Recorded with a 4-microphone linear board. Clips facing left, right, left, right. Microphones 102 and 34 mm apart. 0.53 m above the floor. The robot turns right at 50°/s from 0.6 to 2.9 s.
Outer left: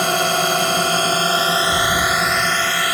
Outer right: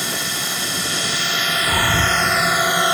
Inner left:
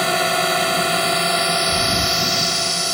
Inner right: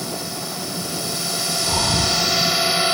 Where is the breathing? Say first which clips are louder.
Outer left 1 dB, inner left 2 dB; 135° right; by 2.3 s 100° right.